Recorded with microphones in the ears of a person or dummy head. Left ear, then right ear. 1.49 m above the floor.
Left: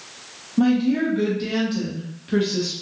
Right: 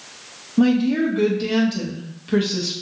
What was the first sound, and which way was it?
A woman speaking, 10° right (ahead or behind).